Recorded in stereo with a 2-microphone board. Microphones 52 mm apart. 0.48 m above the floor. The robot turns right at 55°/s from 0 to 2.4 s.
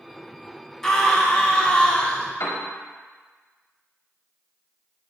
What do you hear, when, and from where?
0.8 s a scream: 10° left (ahead or behind), 0.7 m; by 2.3 s 20° left (ahead or behind), 0.7 m
2.4 s a piano: 75° left (ahead or behind), 1.0 m